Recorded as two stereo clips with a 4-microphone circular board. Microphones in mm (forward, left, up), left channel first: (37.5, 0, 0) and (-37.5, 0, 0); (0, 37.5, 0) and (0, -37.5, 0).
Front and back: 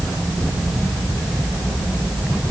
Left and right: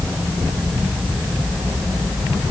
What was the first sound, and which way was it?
Only background noise.